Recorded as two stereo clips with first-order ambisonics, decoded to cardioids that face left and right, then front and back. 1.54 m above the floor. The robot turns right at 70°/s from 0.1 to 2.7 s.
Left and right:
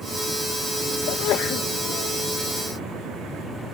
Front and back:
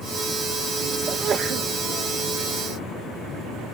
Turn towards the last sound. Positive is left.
turn(degrees=-140)